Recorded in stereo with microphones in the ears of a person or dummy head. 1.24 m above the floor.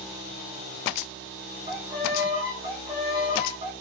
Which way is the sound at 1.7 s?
10° right (ahead or behind).